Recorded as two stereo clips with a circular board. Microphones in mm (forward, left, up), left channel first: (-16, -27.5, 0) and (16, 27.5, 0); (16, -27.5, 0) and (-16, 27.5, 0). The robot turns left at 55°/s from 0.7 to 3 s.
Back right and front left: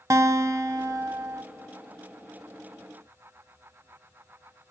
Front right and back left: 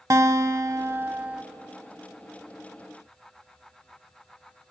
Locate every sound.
0.1 s a guitar: 90° left, 0.5 m; by 1.4 s 50° left, 0.5 m